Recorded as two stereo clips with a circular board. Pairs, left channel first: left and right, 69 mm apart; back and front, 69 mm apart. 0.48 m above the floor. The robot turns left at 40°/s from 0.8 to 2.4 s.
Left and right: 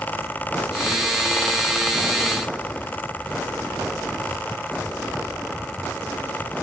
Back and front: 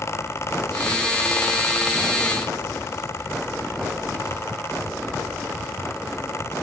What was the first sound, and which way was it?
Only background noise.